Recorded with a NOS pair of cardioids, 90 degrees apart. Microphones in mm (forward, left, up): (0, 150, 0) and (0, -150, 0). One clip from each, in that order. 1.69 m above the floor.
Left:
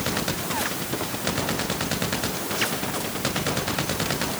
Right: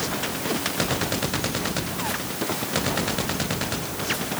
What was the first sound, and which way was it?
Only background noise.